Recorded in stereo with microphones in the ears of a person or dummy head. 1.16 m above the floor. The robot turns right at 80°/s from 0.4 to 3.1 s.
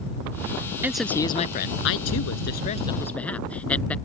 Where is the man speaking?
15° right; by 4.0 s 170° left.